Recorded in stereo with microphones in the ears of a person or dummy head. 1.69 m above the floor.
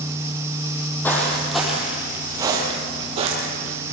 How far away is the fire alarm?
I don't hear a fire alarm.